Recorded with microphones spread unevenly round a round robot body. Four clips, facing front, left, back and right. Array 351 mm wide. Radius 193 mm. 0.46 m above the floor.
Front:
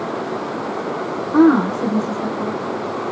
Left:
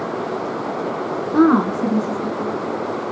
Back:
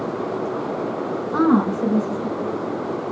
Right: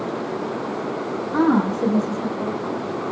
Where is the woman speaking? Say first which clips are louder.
Left 4 dB, front 5 dB; 150° right, 1.7 m; by 2.5 s 110° right, 2.5 m.